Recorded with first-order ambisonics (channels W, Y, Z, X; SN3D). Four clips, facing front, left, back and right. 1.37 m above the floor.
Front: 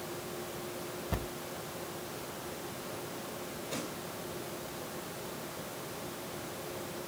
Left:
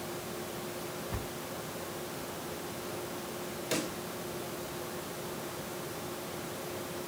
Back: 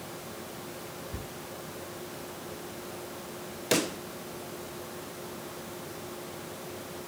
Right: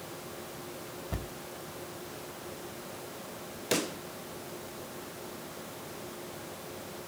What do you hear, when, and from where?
1.1 s a thud: 20° right, 3 m
3.7 s a pop: 160° right, 0.8 m